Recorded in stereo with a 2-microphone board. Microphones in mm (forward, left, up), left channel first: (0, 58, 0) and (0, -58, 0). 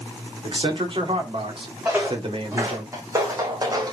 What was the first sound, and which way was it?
A man speaking, 50° right (ahead or behind).